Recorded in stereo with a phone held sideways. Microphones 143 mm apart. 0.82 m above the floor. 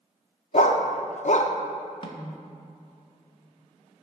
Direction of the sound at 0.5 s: 55° left (ahead or behind).